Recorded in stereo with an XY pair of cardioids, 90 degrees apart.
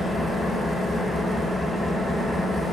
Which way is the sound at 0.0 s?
25° left.